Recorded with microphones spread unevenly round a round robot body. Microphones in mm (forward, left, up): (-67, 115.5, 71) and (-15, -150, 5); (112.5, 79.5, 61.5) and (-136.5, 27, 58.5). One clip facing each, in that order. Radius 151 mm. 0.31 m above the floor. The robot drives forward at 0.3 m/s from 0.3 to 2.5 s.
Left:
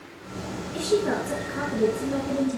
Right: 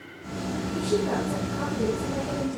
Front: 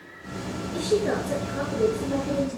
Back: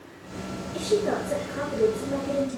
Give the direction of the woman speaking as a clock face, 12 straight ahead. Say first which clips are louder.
Left 3 dB, even; 9 o'clock.